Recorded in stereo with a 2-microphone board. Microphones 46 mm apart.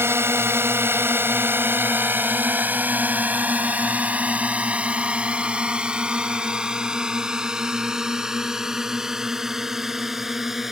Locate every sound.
0.0 s a drone: 65° right (ahead or behind); by 10.7 s 10° right (ahead or behind)